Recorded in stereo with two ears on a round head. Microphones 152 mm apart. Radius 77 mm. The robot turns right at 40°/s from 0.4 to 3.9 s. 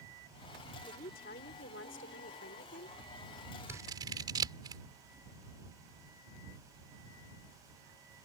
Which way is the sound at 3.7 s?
15° right (ahead or behind).